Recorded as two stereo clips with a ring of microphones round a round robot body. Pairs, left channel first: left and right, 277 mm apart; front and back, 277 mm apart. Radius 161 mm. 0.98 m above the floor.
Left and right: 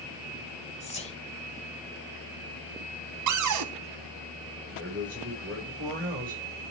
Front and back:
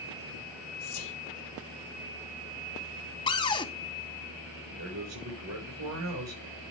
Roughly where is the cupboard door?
Right.